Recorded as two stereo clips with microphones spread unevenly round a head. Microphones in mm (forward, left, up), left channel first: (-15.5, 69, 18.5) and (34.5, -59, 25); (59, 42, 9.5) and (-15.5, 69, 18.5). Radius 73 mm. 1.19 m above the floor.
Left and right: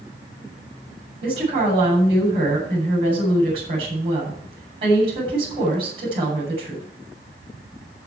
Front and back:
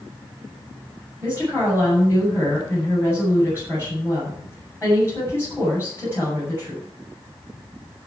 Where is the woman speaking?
125° right, 7.5 m.